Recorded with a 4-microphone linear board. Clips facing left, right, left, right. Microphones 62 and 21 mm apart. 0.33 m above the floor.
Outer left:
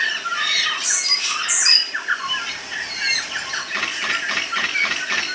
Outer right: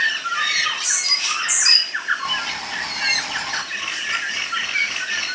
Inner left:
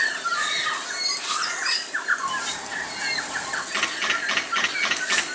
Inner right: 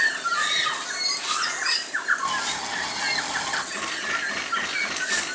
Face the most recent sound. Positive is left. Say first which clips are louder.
# outer left 2 dB, inner left 3 dB
turn(degrees=70)  # may be behind; listen again after turning